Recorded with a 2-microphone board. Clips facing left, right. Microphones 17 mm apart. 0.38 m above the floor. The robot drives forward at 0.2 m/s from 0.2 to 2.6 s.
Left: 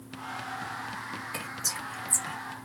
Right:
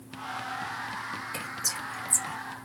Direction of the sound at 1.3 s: 5° right (ahead or behind).